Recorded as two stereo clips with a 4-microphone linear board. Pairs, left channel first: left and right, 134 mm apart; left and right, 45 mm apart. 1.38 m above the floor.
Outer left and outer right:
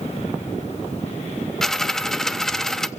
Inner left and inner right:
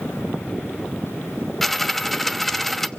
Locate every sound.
1.6 s a dropped coin: 5° left (ahead or behind), 0.8 m